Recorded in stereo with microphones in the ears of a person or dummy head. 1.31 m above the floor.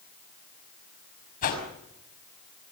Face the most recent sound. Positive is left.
turn(degrees=50)  # may be behind; listen again after turning